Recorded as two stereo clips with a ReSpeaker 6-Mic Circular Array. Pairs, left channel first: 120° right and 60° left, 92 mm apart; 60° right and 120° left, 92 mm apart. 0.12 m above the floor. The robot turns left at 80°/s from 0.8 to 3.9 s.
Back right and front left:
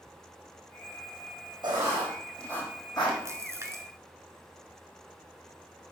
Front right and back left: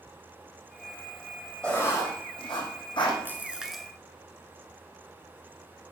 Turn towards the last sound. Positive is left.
turn(degrees=25)